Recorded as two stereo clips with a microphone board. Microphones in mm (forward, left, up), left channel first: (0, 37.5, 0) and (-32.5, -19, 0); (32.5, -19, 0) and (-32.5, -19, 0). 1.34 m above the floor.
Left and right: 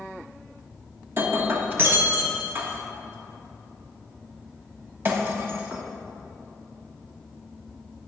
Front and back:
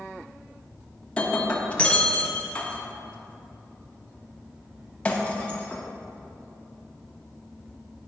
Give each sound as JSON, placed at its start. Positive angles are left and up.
{"t": 1.2, "sound": "breaking glass", "azimuth_deg": -70, "distance_m": 0.9}